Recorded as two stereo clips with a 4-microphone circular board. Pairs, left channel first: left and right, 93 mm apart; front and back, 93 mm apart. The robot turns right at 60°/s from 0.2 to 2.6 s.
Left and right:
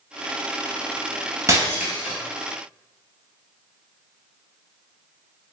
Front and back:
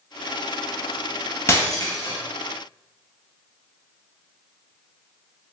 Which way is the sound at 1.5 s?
50° right.